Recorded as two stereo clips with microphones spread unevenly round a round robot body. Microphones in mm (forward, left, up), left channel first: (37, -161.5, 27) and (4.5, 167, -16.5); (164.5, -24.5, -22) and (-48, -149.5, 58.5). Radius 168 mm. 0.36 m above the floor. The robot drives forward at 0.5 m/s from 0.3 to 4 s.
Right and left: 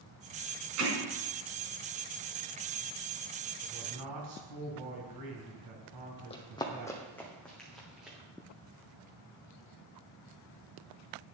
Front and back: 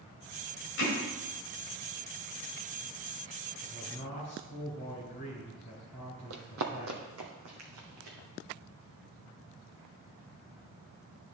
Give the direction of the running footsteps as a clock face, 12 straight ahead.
5 o'clock.